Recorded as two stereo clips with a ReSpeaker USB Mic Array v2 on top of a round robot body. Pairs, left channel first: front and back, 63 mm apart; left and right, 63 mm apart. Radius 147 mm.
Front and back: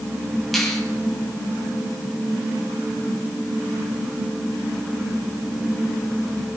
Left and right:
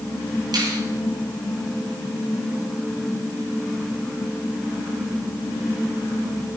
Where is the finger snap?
90° right, 6 m.